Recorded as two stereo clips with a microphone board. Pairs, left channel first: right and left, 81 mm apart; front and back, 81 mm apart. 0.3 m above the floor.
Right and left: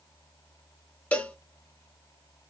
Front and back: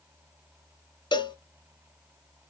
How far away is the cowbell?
About 0.9 m.